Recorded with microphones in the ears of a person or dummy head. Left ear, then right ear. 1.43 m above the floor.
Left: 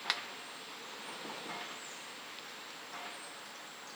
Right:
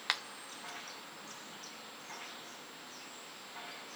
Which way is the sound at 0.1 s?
10° right (ahead or behind).